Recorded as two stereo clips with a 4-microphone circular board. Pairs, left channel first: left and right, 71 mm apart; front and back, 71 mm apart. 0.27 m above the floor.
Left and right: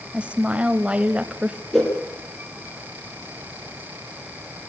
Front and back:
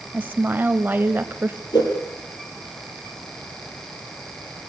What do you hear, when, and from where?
0.1 s a woman speaking: 150° right, 1.1 m
1.7 s a whoosh: 5° left, 8 m